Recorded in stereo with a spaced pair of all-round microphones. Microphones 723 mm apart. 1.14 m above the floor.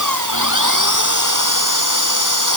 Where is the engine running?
25° right (ahead or behind).